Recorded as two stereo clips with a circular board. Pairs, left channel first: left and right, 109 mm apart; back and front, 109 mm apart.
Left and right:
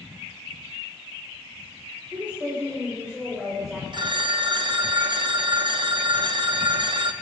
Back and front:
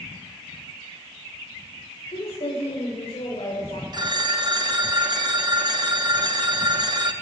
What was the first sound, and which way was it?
A woman speaking, 165° right.